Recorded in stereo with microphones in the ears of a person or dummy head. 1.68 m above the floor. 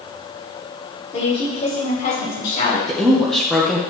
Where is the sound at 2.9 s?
5° left (ahead or behind), 1.4 m.